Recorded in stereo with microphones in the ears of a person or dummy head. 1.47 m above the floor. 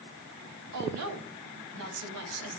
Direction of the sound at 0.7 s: 75° right (ahead or behind).